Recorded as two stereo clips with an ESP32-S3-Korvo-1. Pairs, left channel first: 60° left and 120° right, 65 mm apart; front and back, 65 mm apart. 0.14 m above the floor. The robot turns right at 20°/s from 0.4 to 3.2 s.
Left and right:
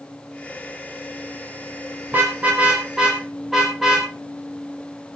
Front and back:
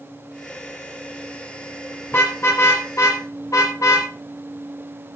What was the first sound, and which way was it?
A car horn, 55° right.